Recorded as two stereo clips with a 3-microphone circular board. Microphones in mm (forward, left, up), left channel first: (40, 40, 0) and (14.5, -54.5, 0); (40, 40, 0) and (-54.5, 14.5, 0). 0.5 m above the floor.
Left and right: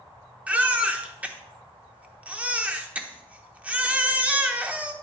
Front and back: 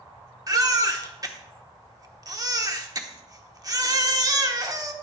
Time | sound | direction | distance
0.5 | a baby crying | 170° right | 1.0 m